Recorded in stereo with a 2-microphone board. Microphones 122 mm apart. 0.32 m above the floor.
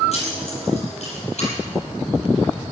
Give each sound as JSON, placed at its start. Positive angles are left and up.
{"t": 0.1, "sound": "keys jangling", "side_deg": 60, "distance_m": 7.5}